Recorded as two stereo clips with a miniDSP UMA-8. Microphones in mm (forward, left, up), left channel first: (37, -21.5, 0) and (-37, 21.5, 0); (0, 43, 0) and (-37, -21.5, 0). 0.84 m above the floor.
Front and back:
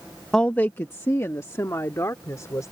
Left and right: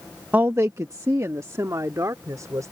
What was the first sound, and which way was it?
A woman speaking, 105° right.